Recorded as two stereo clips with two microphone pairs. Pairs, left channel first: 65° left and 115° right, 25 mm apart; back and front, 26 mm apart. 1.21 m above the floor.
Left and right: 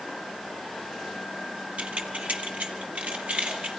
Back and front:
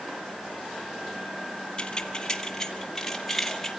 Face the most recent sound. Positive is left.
turn(degrees=-100)